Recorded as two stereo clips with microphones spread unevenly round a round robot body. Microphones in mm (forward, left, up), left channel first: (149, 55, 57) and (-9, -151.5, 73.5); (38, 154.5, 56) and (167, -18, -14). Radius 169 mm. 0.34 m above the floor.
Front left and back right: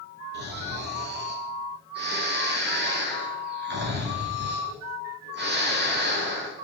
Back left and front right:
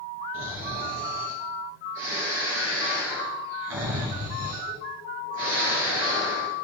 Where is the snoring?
75° right, 5 m.